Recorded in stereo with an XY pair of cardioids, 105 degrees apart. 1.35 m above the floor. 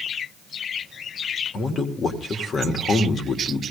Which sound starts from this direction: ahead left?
A man speaking, at 1.5 s.